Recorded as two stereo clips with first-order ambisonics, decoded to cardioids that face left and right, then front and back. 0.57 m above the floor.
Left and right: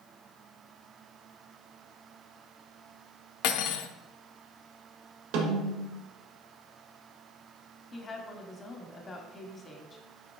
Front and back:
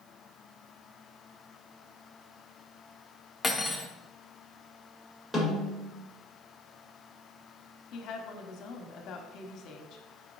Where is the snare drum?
90° right, 1.6 m.